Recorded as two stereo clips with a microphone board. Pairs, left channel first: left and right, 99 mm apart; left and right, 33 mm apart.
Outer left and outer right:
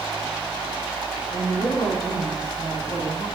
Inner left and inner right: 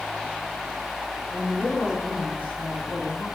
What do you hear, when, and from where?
1.3 s a woman speaking: 75° left (ahead or behind), 8 m